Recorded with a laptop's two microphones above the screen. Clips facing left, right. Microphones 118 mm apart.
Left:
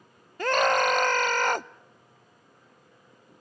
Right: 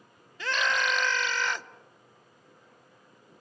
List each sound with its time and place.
0.4 s a scream: 50° left (ahead or behind), 0.6 m